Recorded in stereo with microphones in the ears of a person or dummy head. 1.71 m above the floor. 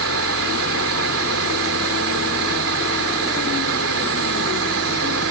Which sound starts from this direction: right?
Running water, at 0.0 s.